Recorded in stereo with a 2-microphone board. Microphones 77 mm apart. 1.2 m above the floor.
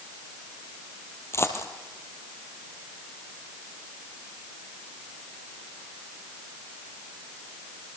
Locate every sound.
1.3 s a dropped coin: 35° left (ahead or behind), 2.5 m